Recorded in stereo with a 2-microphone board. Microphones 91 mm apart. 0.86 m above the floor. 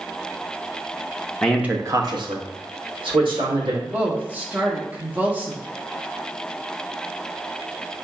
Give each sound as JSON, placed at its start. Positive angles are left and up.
{"t": 1.4, "sound": "a man speaking", "side_deg": 10, "distance_m": 0.6}
{"t": 3.8, "sound": "a woman speaking", "side_deg": -20, "distance_m": 1.1}